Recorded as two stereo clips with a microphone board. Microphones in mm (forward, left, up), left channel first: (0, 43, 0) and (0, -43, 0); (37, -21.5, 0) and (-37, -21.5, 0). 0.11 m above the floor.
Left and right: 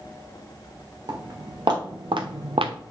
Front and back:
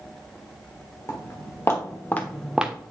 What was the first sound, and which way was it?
Footsteps, 50° right.